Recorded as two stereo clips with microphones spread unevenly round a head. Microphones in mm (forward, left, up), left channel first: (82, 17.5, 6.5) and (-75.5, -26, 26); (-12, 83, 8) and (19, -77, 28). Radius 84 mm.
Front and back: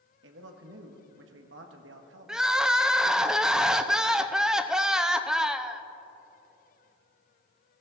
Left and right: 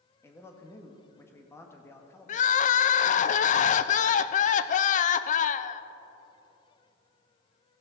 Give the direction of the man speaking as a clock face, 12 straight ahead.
6 o'clock.